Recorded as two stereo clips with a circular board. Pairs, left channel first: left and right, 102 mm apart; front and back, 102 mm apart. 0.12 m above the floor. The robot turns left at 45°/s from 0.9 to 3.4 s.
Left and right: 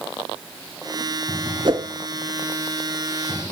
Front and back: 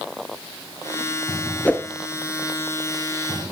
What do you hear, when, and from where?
1.6 s a whoosh: 70° right, 0.7 m; by 1.9 s 80° right, 0.7 m